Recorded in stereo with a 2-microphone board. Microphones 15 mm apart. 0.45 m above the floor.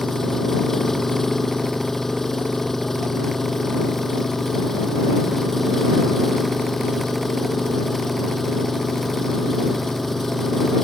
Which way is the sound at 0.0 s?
20° left (ahead or behind).